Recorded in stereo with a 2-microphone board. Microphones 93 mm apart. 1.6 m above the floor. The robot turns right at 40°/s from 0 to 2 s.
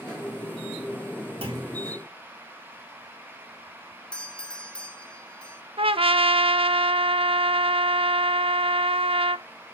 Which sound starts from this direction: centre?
A doorbell, at 4.1 s.